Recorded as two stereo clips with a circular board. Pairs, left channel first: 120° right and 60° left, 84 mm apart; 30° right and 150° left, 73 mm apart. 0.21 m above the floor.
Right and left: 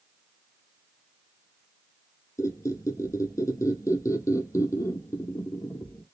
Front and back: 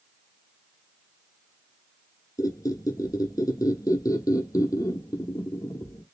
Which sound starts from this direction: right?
A squeak, at 2.4 s.